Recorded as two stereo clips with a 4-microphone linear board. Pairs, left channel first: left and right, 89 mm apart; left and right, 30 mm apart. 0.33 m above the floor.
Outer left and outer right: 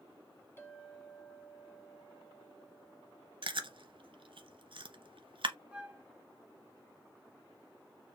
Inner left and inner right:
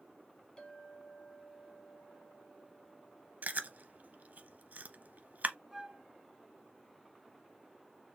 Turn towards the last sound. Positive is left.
turn(degrees=-15)  # may be behind; listen again after turning